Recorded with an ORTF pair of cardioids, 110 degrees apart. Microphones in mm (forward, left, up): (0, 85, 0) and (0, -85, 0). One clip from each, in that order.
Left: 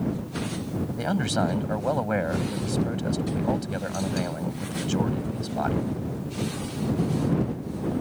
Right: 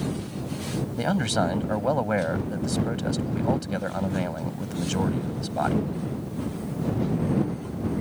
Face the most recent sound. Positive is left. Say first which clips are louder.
# right 2 dB
turn(degrees=-15)